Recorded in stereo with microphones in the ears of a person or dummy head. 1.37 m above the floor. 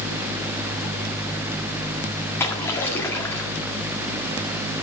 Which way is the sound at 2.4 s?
15° left (ahead or behind).